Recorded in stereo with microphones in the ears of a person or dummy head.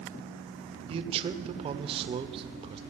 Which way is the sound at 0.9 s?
25° right (ahead or behind).